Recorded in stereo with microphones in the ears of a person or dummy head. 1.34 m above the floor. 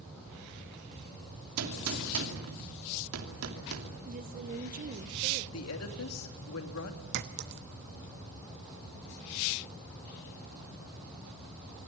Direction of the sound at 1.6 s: 85° right.